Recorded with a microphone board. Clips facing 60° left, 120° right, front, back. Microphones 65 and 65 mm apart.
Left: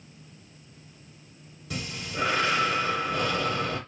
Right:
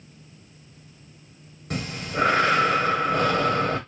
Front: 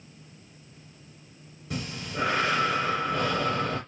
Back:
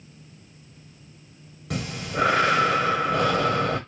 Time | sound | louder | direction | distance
1.7 | breathing | right 5 dB, back 5 dB | 165° right | 0.8 m